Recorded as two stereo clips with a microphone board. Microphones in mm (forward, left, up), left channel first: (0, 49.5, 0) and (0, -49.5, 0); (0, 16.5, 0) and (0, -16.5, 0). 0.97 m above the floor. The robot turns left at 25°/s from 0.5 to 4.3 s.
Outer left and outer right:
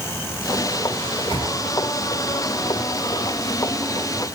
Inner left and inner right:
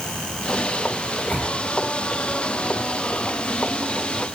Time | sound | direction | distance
1.0 | a microwave | 50° left (ahead or behind) | 7 m